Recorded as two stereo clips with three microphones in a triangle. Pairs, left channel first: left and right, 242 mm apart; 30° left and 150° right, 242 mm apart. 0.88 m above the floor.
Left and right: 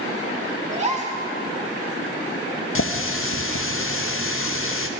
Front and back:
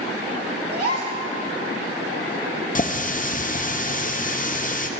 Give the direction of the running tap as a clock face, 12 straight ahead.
9 o'clock.